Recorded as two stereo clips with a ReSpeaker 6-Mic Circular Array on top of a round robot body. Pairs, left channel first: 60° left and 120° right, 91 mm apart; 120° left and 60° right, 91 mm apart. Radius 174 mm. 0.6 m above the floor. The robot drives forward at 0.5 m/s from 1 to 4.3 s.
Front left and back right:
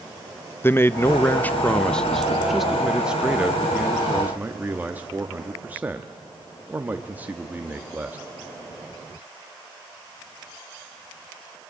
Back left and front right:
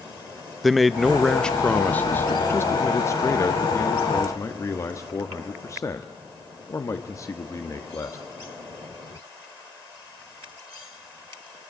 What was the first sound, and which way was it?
A man speaking, 30° left.